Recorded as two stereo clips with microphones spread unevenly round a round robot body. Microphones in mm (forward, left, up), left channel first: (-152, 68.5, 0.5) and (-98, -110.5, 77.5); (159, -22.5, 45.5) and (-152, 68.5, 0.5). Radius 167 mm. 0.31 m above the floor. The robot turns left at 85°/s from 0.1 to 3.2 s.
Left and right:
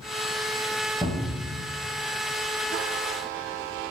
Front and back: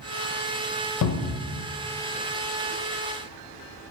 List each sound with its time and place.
1.0 s a cupboard door: 25° left, 0.5 m; by 1.5 s 15° right, 0.5 m